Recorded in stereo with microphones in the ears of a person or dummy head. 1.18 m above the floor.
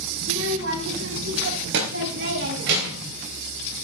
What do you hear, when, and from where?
0.2 s a child speaking: 70° right (ahead or behind), 5 m; by 3.1 s 60° right (ahead or behind), 3 m